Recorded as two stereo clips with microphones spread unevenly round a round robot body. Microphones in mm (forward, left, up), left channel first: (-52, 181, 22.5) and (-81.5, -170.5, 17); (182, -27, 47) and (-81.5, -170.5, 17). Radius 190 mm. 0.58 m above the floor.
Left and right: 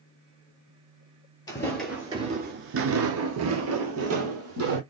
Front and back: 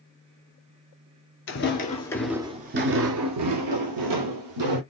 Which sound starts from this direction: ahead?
Footsteps, at 1.5 s.